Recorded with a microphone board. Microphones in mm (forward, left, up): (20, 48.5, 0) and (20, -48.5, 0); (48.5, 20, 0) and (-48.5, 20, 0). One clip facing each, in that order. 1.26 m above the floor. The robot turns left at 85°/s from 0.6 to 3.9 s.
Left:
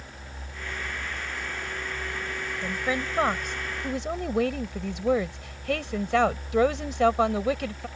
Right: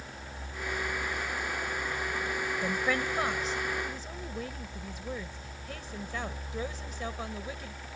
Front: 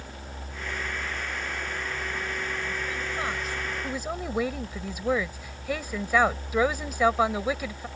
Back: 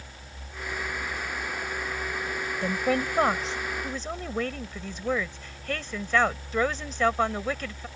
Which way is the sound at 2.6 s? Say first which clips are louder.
Left 2 dB, back 7 dB; 170° right.